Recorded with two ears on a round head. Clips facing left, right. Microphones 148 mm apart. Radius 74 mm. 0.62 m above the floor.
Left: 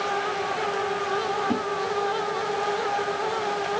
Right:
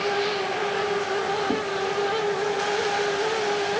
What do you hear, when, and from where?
1.5 s a whoosh: 5° right (ahead or behind), 1.9 m